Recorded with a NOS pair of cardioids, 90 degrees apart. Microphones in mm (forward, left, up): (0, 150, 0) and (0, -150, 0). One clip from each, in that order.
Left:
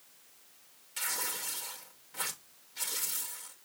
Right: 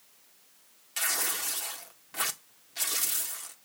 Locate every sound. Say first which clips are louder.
1.0 s tearing paper: right 5 dB; 50° right, 1.7 m